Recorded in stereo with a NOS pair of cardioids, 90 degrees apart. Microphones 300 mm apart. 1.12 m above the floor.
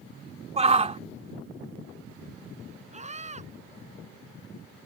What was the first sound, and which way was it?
A shout, 20° right.